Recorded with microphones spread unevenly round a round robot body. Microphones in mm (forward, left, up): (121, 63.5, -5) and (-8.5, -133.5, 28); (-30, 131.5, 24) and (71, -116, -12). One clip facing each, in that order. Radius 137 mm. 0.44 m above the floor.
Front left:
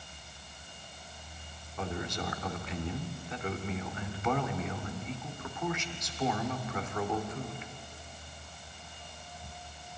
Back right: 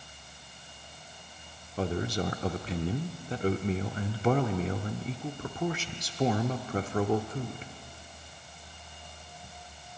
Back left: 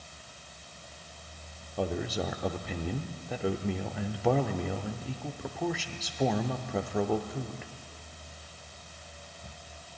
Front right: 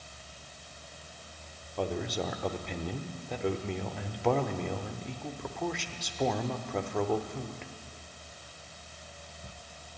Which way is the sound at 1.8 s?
150° right.